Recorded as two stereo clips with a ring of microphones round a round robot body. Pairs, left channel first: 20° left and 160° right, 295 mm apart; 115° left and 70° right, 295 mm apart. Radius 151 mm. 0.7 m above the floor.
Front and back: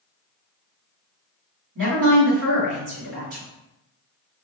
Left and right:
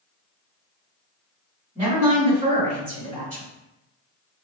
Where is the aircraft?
No aircraft in this recording.